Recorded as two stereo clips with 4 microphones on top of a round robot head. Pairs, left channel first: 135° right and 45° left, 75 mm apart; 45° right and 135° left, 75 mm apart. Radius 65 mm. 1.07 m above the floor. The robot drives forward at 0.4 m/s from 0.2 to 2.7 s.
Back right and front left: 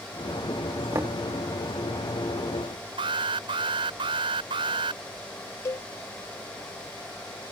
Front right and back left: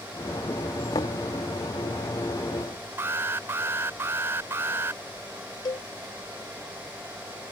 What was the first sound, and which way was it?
Knocking, 10° right.